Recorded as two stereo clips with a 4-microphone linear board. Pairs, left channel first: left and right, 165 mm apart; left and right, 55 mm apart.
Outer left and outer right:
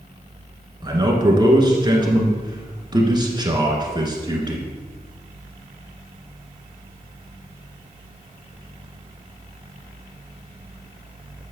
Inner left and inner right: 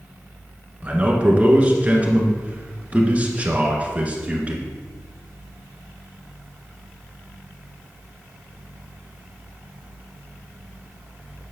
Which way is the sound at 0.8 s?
25° right (ahead or behind).